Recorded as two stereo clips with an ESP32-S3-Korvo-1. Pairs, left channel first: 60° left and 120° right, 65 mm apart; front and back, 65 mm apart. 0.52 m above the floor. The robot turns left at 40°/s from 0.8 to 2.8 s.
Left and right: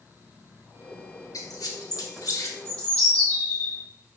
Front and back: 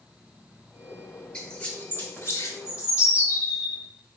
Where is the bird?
Straight ahead, 1.3 m; by 3.8 s 10° right, 1.3 m.